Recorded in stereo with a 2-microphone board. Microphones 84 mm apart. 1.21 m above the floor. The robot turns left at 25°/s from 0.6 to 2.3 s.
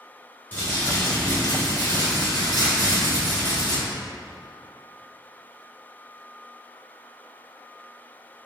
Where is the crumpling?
155° left, 1.8 m; by 3.8 s 115° left, 1.8 m.